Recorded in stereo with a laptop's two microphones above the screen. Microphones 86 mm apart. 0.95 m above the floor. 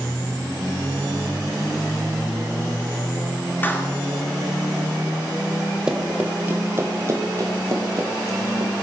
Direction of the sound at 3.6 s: 25° left (ahead or behind).